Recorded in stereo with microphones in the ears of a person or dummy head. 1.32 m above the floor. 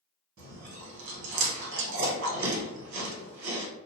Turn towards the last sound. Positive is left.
turn(degrees=-70)  # may be behind; listen again after turning